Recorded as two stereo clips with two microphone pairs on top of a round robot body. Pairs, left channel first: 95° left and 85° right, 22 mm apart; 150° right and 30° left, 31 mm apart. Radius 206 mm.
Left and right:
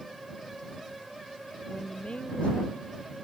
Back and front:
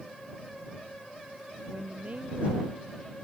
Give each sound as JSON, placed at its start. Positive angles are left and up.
{"t": 1.7, "sound": "a woman speaking", "azimuth_deg": 75}